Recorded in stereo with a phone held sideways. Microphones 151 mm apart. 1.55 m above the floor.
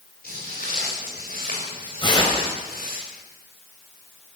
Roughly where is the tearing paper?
Left.